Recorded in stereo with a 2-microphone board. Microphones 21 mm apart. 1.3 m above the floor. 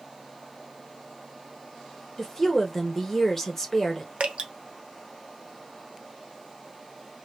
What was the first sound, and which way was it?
A woman speaking, 15° left (ahead or behind).